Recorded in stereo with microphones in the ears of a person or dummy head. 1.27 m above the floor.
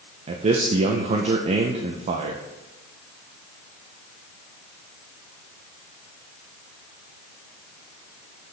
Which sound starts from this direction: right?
A man speaking, at 0.3 s.